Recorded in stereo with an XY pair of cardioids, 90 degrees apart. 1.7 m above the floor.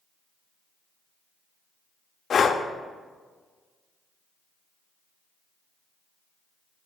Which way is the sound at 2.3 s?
55° left.